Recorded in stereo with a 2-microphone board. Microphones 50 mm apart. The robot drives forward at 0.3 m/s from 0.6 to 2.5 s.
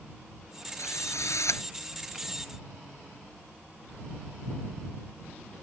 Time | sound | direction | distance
0.8 | a drill | 80° left | ?